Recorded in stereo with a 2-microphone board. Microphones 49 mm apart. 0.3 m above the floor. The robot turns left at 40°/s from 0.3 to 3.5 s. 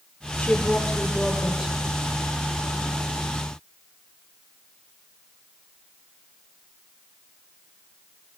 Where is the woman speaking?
30° left, 7 m; by 1.8 s 25° right, 7 m.